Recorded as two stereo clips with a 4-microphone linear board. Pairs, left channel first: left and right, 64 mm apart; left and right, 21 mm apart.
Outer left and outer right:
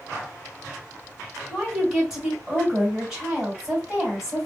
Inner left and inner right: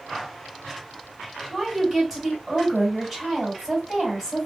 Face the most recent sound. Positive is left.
turn(degrees=-10)  # may be behind; listen again after turning